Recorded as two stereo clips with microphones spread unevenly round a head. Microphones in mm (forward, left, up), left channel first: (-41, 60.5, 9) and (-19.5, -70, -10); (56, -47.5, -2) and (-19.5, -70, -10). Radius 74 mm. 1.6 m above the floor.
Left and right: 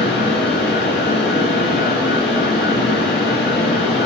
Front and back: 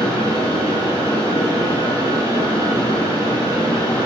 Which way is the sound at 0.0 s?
70° left.